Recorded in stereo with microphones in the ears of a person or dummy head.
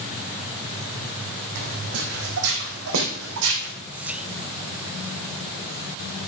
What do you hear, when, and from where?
1.6 s footsteps: 50° right (ahead or behind), 3.5 m; by 3.7 s 65° right (ahead or behind), 4 m
3.9 s whispering: 5° right (ahead or behind), 0.5 m